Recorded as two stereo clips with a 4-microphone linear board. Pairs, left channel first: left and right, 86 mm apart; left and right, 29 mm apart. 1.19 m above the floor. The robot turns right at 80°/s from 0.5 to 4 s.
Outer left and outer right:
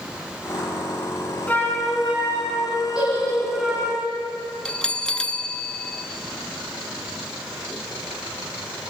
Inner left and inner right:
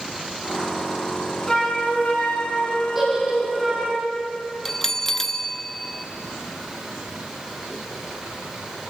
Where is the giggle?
10° right (ahead or behind), 10 m; by 3.8 s 75° right (ahead or behind), 10 m.